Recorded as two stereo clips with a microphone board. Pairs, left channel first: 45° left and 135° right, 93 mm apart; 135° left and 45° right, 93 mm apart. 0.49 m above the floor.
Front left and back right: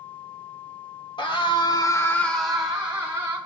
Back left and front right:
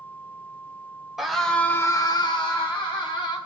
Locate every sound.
1.2 s a scream: 40° left, 1.8 m; by 3.4 s 160° left, 2.5 m